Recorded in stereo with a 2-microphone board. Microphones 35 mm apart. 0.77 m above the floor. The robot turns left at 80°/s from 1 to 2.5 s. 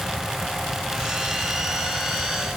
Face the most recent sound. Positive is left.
No sound to turn to.